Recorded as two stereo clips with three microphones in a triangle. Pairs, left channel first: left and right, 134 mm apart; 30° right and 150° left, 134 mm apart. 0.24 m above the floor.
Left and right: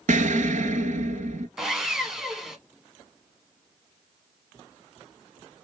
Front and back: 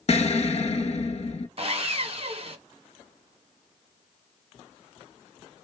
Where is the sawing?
175° right, 0.8 m.